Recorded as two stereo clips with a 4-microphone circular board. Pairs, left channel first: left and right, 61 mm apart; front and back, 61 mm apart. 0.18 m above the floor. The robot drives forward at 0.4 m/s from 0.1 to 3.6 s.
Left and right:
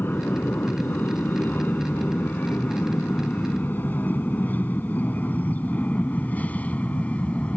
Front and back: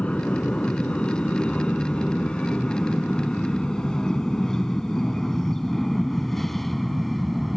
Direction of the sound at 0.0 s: 60° left.